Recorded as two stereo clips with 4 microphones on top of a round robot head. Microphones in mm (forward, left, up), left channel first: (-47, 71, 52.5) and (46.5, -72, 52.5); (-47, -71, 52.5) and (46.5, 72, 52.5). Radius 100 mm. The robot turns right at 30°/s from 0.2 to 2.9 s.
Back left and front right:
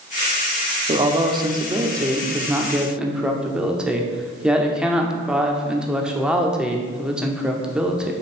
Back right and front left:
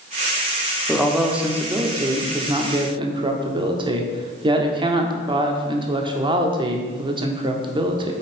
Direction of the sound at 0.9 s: 35° right.